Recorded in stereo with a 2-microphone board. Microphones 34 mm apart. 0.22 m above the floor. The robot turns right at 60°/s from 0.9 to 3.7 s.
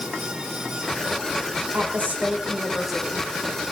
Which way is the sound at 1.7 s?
75° right.